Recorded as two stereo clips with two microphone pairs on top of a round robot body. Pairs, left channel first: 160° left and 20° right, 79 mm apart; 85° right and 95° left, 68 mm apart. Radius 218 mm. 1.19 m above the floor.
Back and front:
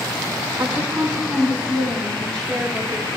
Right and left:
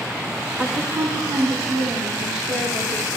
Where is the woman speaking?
35° left, 0.7 m; by 3.1 s 85° left, 2 m.